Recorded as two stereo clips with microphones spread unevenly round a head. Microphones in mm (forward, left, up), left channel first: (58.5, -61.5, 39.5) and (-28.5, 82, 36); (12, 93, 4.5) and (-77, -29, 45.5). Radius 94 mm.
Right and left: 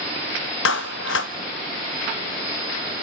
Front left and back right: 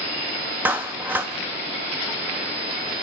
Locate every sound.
0.7 s a clap: 45° right, 1.0 m